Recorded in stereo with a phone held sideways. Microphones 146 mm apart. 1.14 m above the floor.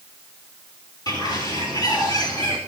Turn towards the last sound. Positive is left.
turn(degrees=30)  # may be behind; listen again after turning